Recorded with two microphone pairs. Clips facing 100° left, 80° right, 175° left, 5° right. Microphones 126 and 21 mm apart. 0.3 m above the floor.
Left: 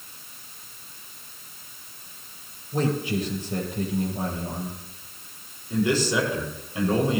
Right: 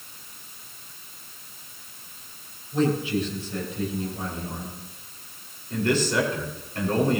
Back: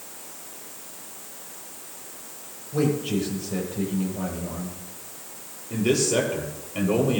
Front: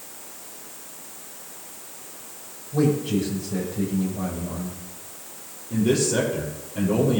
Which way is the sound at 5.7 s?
Straight behind.